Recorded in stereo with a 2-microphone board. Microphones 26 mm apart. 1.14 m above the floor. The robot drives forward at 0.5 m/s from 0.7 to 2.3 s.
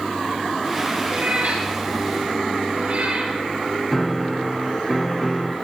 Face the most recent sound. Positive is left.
turn(degrees=5)  # may be behind; listen again after turning